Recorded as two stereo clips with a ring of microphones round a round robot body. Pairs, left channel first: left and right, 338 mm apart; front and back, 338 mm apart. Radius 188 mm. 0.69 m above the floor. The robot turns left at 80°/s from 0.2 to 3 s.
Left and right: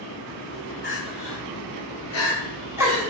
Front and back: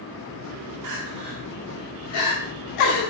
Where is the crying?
150° left, 1.5 m; by 3.1 s 25° right, 1.5 m.